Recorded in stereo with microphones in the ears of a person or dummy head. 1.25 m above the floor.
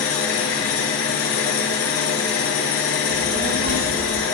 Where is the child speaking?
45° right (ahead or behind), 1.4 m.